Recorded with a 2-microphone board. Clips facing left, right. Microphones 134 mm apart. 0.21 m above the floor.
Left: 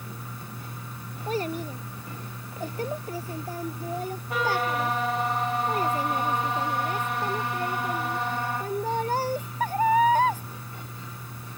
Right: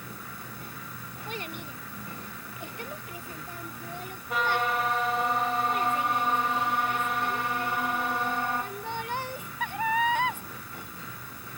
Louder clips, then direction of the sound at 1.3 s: Left 10 dB; 40° left (ahead or behind).